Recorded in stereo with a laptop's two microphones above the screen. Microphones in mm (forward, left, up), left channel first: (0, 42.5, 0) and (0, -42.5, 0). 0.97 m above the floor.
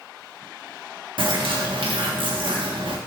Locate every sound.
1.2 s a bird: 75° right (ahead or behind), 1.3 m